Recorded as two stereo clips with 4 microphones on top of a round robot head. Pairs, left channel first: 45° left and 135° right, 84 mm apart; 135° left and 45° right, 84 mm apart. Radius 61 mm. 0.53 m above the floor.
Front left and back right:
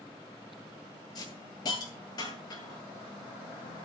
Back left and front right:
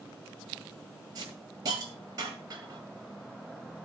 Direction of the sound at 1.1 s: Straight ahead.